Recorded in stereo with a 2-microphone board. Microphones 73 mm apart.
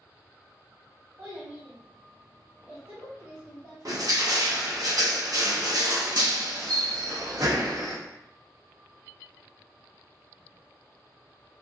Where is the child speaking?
35° right (ahead or behind), 1.3 m.